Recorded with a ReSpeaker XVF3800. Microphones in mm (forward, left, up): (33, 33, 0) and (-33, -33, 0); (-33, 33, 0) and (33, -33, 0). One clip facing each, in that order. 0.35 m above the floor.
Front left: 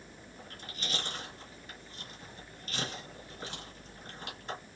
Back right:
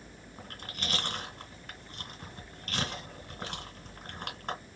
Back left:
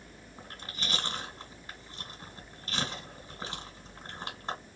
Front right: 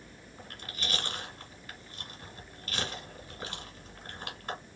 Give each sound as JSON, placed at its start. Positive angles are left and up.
{"t": 0.4, "sound": "chewing", "azimuth_deg": -165, "distance_m": 1.8}